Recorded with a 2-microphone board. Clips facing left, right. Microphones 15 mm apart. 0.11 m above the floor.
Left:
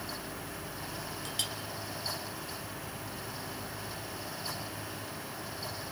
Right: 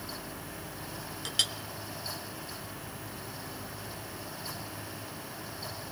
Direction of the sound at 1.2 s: 30° right (ahead or behind).